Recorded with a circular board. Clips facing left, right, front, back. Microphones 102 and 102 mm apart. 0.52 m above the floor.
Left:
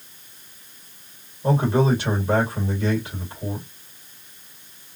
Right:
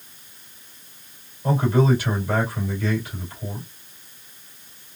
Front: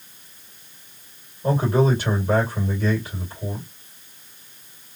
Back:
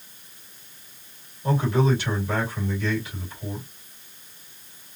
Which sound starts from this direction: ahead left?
A man speaking, at 1.4 s.